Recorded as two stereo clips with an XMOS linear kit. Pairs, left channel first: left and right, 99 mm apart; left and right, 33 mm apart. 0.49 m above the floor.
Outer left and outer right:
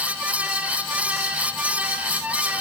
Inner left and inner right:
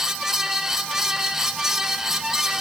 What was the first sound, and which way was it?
Only background noise.